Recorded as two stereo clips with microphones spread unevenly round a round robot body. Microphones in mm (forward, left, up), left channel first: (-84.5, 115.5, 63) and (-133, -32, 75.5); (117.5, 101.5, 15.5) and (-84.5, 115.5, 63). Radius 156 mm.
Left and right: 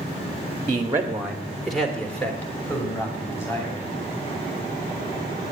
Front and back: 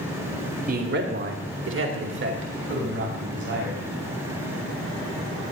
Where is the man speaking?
150° right, 1.4 m; by 3.9 s 145° left, 5 m.